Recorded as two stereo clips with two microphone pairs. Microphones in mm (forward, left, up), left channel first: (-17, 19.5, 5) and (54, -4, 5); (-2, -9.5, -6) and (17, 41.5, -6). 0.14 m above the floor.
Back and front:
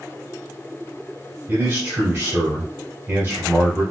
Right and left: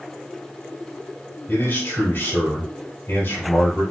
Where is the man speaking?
70° right, 1.7 m.